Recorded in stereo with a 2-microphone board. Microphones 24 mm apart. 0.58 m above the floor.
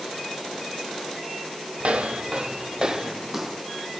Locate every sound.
1.8 s footsteps: 60° right (ahead or behind), 1.2 m; by 3.6 s 5° right (ahead or behind), 1.6 m